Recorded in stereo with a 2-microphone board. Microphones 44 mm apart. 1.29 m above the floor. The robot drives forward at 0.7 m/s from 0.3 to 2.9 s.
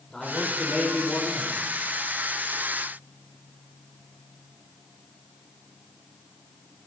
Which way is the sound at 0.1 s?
20° left (ahead or behind).